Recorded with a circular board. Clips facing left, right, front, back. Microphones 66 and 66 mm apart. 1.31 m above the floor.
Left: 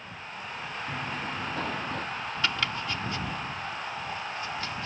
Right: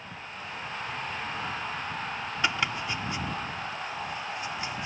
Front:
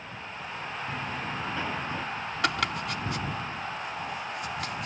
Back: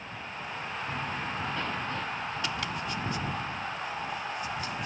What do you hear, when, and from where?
0.9 s running footsteps: 85° left; by 2.1 s 80° left
2.4 s chopping: 20° right